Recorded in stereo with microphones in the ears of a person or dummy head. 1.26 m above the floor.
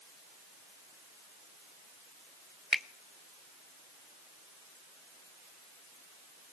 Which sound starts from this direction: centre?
A finger snap, at 2.7 s.